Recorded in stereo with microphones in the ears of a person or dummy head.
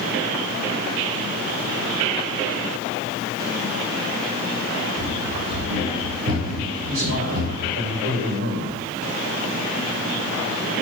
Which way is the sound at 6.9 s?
80° right.